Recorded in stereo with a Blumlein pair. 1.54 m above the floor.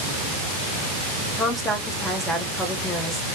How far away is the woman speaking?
About 1.3 m.